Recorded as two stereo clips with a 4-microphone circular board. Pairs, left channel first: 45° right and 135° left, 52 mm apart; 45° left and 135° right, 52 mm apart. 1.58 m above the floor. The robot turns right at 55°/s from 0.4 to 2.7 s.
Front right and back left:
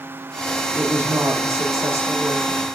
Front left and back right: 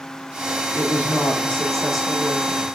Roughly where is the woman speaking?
Left.